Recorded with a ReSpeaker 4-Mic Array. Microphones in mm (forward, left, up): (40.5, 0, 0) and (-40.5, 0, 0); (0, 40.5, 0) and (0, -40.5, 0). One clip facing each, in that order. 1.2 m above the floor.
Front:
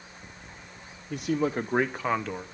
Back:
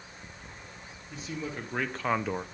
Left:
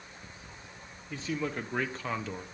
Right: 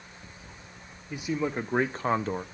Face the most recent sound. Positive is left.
turn(degrees=-120)